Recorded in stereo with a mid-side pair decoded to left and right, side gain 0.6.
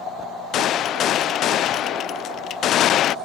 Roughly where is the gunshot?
Ahead left.